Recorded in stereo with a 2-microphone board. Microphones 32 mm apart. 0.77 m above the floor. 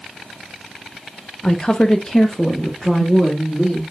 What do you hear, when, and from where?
1.4 s a woman speaking: 25° left (ahead or behind), 0.7 m; by 3.8 s 5° right (ahead or behind), 1.9 m